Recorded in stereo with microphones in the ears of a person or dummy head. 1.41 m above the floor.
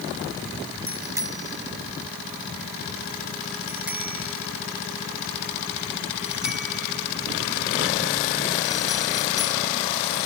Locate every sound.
0.9 s a bicycle bell: 15° right (ahead or behind); by 9.6 s 5° left (ahead or behind)